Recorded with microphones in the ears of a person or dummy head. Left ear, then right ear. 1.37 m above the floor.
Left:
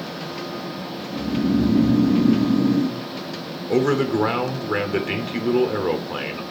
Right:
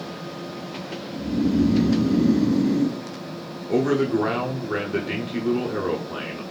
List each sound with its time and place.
1.1 s snoring: 10° left (ahead or behind), 1.5 m
3.7 s a man speaking: 20° left (ahead or behind), 0.5 m